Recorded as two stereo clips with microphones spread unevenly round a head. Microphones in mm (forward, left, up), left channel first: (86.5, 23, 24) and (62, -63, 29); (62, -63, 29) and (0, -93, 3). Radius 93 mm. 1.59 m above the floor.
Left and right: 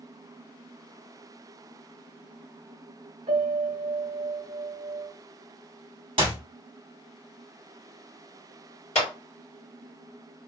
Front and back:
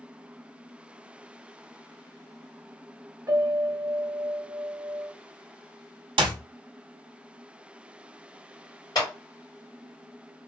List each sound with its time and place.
3.3 s a piano: 105° right, 0.6 m
6.2 s a clap: 165° right, 0.6 m
8.9 s a clap: 80° left, 2 m